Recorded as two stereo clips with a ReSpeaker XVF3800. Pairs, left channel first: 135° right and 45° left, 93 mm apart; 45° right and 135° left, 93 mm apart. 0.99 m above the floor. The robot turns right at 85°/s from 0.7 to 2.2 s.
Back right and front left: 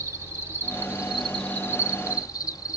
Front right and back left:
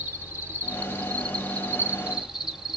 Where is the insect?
85° left, 0.9 m; by 2.8 s 145° right, 0.9 m.